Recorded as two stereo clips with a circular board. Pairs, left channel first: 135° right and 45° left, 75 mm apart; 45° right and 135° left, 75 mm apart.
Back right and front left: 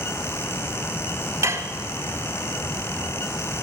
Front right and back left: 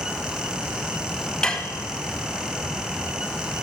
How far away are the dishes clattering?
About 1.1 m.